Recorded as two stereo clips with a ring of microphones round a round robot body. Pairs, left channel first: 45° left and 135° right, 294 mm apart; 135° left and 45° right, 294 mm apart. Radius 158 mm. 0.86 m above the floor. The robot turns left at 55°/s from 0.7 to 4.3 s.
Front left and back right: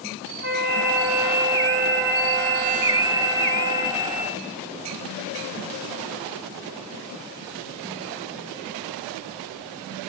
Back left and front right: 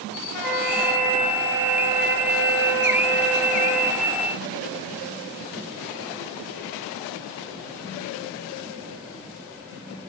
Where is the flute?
25° right, 6.5 m; by 4.0 s 155° left, 6.5 m.